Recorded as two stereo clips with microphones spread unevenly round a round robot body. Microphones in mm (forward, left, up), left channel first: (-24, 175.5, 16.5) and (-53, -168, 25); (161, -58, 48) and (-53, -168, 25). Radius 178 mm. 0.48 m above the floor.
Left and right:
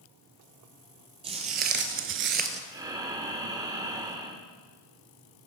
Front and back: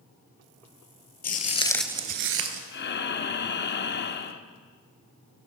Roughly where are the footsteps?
Ahead.